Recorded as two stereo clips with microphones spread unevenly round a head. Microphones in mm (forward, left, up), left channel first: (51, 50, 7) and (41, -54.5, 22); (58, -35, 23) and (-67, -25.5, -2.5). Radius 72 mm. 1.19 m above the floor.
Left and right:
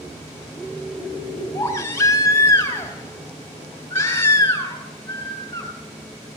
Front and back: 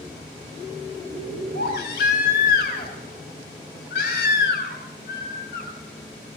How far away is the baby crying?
About 3.5 m.